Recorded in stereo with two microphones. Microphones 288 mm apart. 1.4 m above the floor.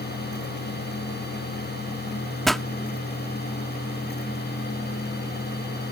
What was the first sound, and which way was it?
A pop, centre (ahead or behind).